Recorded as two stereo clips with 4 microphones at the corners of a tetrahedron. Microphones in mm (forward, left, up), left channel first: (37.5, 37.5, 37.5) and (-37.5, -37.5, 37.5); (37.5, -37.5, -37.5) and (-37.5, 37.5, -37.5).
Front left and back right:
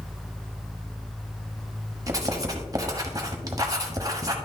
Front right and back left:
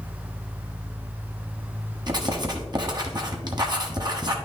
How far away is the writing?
About 1.2 m.